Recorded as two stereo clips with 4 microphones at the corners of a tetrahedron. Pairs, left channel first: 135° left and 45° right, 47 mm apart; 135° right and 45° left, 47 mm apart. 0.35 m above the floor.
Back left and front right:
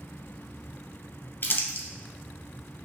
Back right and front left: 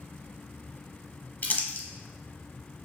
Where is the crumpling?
170° left, 0.7 m.